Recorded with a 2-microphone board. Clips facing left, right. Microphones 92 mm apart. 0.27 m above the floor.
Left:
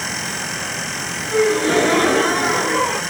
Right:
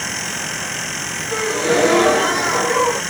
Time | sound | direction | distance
1.3 | a gasp | 15° right (ahead or behind) | 1.3 m